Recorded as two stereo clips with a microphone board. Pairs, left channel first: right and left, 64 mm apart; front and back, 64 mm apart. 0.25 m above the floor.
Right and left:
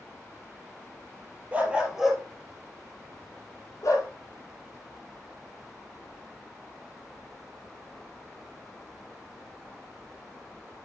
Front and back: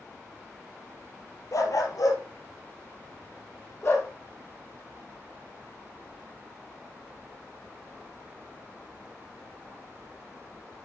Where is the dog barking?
25° left, 2 m; by 4.1 s 55° right, 3 m.